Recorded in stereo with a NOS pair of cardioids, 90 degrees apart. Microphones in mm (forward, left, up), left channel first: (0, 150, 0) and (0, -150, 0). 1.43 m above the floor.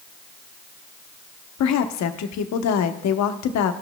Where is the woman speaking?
65° left, 0.8 m.